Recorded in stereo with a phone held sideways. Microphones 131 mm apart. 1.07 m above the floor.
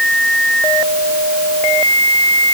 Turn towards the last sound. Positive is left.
No sound to turn to.